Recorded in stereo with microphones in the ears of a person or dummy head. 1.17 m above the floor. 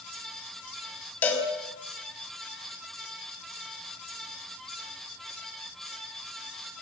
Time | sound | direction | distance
1.2 | a cowbell | 10° left (ahead or behind) | 5.5 m